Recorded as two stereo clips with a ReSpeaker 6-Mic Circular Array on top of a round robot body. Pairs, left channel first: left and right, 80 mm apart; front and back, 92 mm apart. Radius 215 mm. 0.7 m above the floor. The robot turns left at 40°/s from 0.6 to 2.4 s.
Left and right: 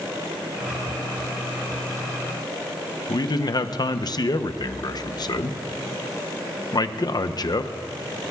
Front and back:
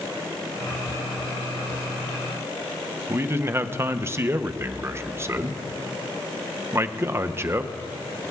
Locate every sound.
3.1 s a man speaking: 120° left, 0.8 m